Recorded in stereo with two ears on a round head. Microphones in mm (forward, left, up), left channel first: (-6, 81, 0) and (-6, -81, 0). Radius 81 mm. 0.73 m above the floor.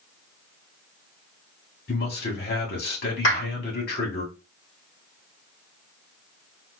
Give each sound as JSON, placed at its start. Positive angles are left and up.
{"t": 1.9, "sound": "a man speaking", "side_deg": 55, "distance_m": 1.7}
{"t": 3.2, "sound": "a clap", "side_deg": 65, "distance_m": 2.5}